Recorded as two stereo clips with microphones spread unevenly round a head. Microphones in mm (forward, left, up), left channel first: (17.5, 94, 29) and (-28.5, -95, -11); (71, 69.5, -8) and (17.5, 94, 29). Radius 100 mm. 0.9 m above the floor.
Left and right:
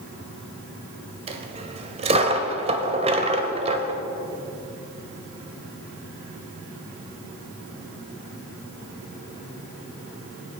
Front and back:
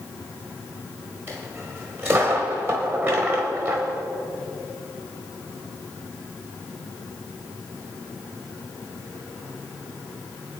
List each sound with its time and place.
1.3 s a dropped coin: 165° right, 1.1 m